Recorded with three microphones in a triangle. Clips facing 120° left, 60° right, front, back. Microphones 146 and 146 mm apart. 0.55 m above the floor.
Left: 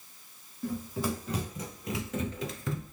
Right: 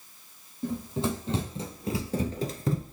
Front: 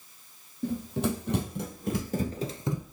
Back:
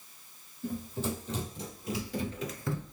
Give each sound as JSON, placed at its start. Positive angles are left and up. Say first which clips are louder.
{"t": 0.6, "sound": "running footsteps", "louder": "right 3 dB, front 5 dB", "azimuth_deg": 5, "distance_m": 1.6}